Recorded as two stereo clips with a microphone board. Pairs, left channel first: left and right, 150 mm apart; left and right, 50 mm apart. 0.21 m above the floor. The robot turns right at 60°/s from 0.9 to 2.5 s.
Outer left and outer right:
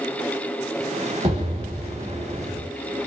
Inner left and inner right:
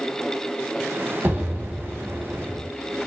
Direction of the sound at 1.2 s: 75° right.